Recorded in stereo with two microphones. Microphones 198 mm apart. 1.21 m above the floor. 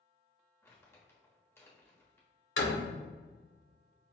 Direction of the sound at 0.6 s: 10° left (ahead or behind).